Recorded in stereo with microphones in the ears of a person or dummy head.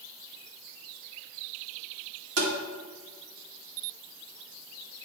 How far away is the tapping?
About 2 m.